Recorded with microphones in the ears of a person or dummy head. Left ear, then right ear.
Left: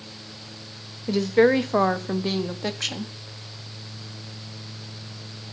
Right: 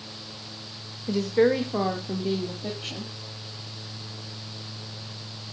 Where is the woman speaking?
15° left (ahead or behind), 1.2 m; by 3.1 s 65° left (ahead or behind), 1.9 m.